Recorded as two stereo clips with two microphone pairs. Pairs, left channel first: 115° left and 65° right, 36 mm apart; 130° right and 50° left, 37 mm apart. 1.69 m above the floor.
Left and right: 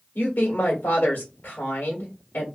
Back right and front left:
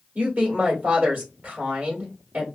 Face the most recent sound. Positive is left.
turn(degrees=85)